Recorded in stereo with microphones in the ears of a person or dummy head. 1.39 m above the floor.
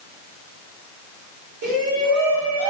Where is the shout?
55° right (ahead or behind), 3.5 m; by 2.7 s 75° right (ahead or behind), 4 m.